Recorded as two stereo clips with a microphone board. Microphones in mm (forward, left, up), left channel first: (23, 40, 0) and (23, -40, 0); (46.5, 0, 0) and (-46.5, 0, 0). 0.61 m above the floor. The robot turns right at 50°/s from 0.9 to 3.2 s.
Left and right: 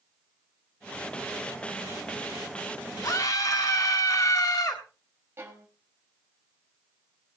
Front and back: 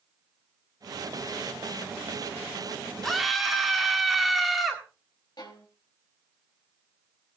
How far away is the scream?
About 1.8 m.